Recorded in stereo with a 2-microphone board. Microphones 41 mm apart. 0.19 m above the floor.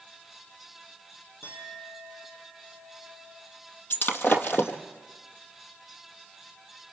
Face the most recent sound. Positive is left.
turn(degrees=50)  # may be behind; listen again after turning